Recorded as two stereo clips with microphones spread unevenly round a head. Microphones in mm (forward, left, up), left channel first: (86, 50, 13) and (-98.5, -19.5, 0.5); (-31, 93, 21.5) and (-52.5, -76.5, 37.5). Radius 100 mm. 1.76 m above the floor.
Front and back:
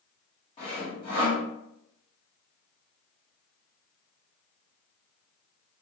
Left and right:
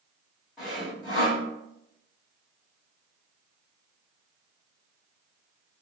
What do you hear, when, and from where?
0.6 s sawing: 25° right, 1.4 m